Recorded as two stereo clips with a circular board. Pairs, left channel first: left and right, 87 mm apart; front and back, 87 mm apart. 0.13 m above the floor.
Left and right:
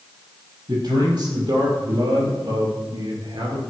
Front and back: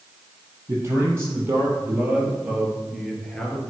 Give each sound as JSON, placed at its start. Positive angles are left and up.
{"t": 0.7, "sound": "a man speaking", "azimuth_deg": -120, "distance_m": 4.5}